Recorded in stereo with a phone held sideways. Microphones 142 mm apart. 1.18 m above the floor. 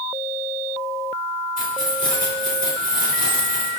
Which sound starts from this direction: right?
Keys jangling, at 1.6 s.